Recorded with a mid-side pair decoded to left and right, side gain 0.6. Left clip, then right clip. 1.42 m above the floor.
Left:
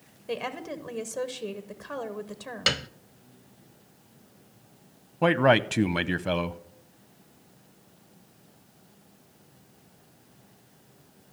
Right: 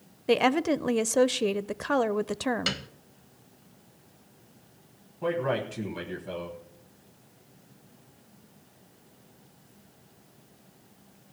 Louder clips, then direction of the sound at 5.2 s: Left 8 dB; 65° left.